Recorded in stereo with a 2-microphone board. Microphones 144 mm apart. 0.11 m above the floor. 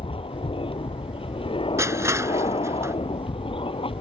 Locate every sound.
0.0 s an aircraft: 40° left (ahead or behind)
1.8 s crushing: 20° right (ahead or behind)